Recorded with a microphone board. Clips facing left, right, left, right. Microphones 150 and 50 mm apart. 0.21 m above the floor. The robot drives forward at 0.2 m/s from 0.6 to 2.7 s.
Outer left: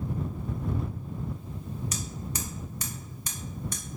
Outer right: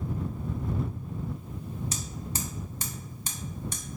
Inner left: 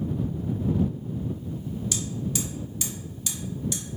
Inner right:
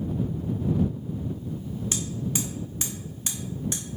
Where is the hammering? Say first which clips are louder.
Even, inner right 2 dB; 30° right (ahead or behind), 1.3 m; by 3.8 s 25° right (ahead or behind), 1.4 m.